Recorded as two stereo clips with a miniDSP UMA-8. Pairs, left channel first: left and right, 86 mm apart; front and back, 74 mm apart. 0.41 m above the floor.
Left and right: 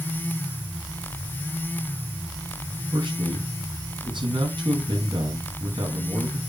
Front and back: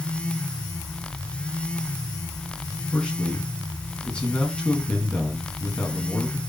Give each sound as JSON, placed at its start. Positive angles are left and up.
{"t": 2.9, "sound": "a man speaking", "azimuth_deg": -75, "distance_m": 4.0}